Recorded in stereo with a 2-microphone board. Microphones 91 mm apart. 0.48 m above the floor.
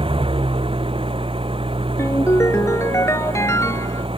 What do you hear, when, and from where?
0.0 s an engine running: 80° right
2.0 s a ringtone: 35° left (ahead or behind)